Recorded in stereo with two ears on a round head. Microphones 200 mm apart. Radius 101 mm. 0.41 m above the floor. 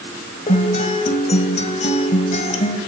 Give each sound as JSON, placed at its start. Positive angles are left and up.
{"t": 0.5, "sound": "a guitar", "side_deg": 35, "distance_m": 2.0}